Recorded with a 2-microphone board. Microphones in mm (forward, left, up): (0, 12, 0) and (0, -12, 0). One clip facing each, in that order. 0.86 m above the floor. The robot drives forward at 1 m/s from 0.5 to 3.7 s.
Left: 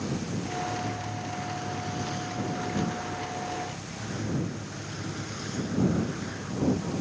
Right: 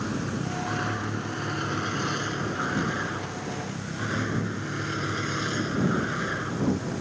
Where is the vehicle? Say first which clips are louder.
Right 2 dB; 75° right (ahead or behind); by 7.0 s 55° right (ahead or behind).